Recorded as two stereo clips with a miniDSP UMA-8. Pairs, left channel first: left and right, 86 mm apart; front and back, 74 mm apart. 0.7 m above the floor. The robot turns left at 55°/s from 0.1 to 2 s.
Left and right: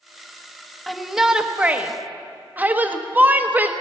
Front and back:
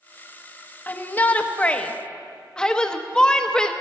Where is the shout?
Straight ahead, 0.9 m; by 3.7 s 60° right, 0.9 m.